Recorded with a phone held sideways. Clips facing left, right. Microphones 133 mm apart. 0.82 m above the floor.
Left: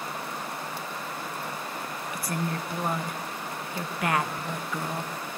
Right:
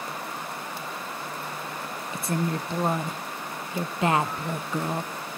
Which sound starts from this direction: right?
A woman speaking, at 2.1 s.